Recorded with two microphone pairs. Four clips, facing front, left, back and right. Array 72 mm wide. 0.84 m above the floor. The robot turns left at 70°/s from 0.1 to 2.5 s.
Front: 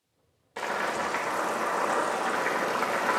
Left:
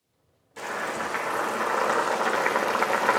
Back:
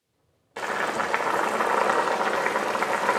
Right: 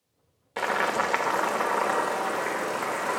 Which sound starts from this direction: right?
Boiling, at 0.6 s.